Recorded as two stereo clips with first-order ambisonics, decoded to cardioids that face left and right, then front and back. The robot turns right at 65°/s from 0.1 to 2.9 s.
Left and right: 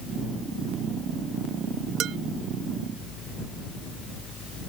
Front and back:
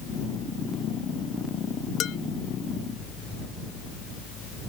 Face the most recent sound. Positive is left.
turn(degrees=10)